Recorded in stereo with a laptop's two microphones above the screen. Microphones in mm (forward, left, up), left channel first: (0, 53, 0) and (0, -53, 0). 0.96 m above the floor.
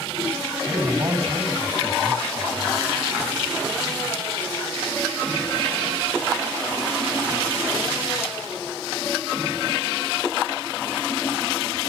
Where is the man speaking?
35° right (ahead or behind), 5 m.